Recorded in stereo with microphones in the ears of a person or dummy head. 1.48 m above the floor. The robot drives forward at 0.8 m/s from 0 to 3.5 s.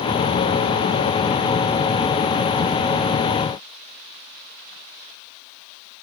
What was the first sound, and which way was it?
Only background noise.